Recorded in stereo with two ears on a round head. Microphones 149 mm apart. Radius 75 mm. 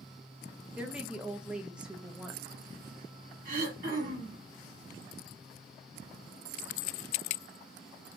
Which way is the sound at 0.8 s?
5° right (ahead or behind).